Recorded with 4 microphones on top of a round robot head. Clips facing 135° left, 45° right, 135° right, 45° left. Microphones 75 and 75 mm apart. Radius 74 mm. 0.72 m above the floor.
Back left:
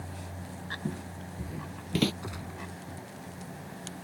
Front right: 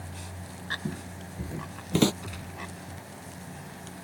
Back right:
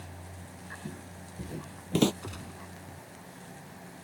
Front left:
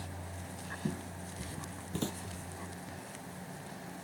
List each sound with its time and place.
0.8 s footsteps: 55° left; by 2.1 s 110° right
2.2 s a gunshot: 155° right